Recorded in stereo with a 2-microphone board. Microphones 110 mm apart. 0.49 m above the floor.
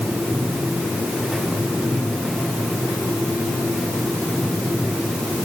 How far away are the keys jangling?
No keys jangling in this recording.